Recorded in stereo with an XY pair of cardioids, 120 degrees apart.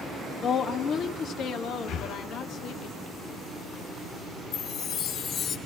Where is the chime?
65° left, 4 m.